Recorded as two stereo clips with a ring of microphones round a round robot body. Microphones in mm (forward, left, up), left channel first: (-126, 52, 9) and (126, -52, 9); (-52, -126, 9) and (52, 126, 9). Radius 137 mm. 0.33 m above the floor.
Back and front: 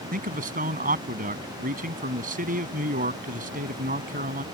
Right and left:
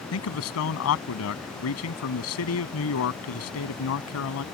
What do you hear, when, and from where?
0.1 s a man speaking: 80° right